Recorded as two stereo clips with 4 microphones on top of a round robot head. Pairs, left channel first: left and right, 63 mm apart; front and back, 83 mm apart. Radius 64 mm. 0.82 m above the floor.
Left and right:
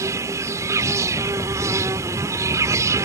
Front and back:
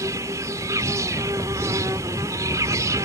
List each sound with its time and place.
0.0 s an insect: 125° right